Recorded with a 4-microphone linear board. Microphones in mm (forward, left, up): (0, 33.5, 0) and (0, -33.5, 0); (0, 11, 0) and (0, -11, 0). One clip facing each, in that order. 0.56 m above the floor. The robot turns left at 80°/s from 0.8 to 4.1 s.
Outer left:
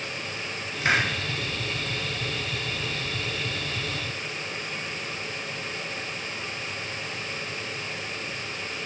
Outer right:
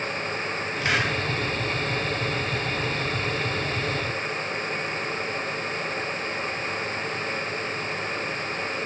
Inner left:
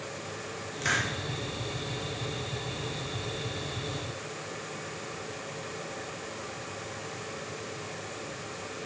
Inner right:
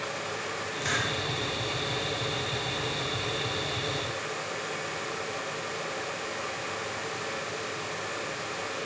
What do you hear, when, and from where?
0.8 s a hiss: 20° left (ahead or behind), 1.1 m; by 1.1 s 30° left (ahead or behind), 1.1 m